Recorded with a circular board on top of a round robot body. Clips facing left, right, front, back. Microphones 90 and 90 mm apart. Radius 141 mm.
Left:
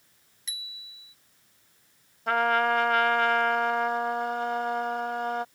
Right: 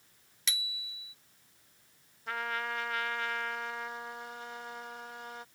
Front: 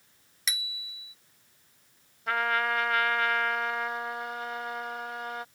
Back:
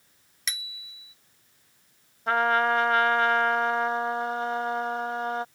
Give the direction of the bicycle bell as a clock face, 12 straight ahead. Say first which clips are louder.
Right 6 dB, front 1 dB; 3 o'clock.